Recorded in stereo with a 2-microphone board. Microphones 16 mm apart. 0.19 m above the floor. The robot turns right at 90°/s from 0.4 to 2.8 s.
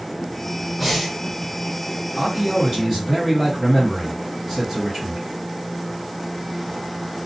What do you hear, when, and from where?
0.8 s breathing: 175° left, 1.7 m; by 1.1 s 155° right, 1.7 m
2.2 s a man speaking: 30° right (ahead or behind), 1.8 m; by 5.2 s 15° right (ahead or behind), 1.8 m